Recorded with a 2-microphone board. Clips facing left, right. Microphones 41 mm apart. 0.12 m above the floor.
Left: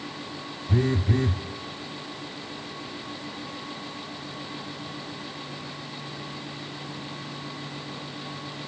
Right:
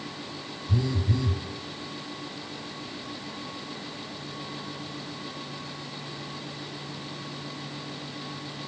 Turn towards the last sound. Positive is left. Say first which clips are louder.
# left 4 dB
turn(degrees=45)  # may be behind; listen again after turning